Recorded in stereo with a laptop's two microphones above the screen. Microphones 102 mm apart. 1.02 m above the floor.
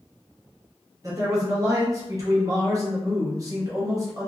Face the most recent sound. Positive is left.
turn(degrees=-30)  # may be behind; listen again after turning